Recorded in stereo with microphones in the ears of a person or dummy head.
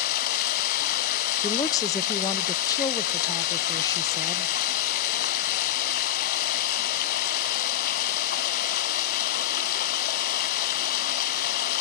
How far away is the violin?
I don't hear a violin.